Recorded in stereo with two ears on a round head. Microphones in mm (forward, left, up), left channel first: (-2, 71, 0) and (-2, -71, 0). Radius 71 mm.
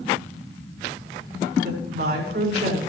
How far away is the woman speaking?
About 6.5 m.